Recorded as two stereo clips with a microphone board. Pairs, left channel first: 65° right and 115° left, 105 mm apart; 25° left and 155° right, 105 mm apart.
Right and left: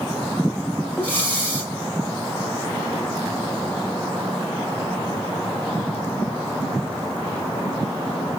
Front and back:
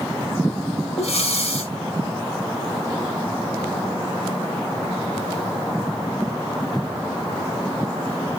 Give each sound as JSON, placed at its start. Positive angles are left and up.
{"t": 1.0, "sound": "breathing", "azimuth_deg": 10, "distance_m": 7.0}